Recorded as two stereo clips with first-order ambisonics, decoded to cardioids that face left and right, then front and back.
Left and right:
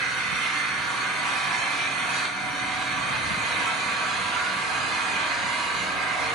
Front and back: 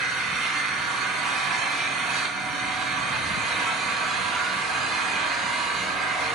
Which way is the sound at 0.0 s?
130° right.